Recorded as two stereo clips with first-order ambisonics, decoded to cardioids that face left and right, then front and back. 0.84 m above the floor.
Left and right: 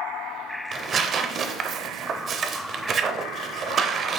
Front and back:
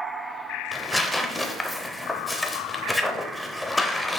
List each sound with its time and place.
0.7 s tearing paper: 80° right, 0.6 m